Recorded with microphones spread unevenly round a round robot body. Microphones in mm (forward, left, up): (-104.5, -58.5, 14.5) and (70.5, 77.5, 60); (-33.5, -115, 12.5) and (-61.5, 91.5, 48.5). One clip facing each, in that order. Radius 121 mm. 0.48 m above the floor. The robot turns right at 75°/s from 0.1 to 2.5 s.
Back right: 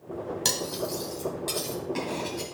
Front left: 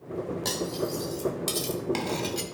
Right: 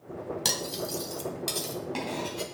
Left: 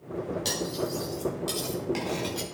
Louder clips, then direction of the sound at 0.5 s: Front left 2 dB, left 4 dB; 95° right.